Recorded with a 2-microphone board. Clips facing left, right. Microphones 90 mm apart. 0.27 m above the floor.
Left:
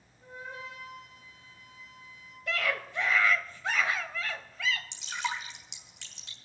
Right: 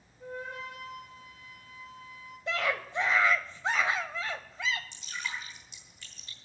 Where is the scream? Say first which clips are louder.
Right 1 dB; 25° right (ahead or behind), 1.2 m.